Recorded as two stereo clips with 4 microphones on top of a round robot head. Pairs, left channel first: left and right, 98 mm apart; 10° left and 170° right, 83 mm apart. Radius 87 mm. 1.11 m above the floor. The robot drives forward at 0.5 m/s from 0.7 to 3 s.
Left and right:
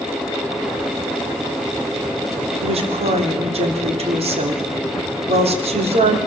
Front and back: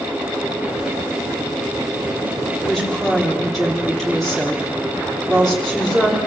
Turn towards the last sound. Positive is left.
turn(degrees=-80)